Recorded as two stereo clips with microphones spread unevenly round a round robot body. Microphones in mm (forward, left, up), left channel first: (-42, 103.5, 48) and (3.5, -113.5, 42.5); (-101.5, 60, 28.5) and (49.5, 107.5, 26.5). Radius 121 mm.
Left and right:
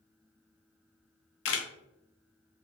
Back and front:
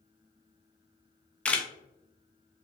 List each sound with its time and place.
1.4 s a camera shutter: 115° left, 0.6 m